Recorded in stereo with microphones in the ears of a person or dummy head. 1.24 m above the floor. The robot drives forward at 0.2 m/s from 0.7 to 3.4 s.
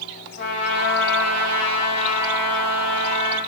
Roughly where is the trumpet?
Left.